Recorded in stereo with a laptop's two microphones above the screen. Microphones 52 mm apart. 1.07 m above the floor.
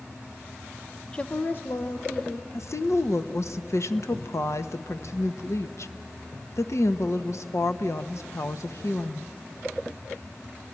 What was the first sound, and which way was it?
A woman speaking, 15° left (ahead or behind).